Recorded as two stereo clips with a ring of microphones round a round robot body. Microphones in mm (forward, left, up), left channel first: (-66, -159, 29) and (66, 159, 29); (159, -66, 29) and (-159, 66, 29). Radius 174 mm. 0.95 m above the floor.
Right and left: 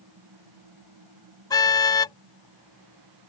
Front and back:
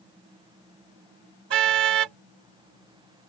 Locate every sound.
1.5 s a car horn: 170° left